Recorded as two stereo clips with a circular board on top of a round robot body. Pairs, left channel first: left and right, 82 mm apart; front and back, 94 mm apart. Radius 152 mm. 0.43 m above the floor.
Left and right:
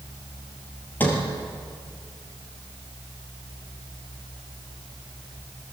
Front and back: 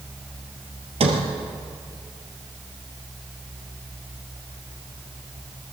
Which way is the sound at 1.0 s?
160° left.